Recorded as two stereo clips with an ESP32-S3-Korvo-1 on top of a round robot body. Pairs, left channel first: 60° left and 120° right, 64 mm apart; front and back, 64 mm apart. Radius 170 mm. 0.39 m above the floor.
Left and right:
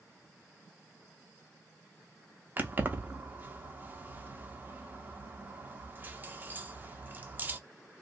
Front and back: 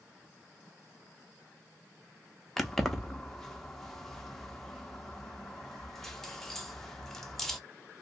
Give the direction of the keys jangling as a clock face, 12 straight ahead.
3 o'clock.